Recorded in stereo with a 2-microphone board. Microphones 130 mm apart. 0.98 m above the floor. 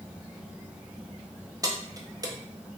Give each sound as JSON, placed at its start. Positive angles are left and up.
{"t": 1.6, "sound": "keys jangling", "side_deg": -30, "distance_m": 0.5}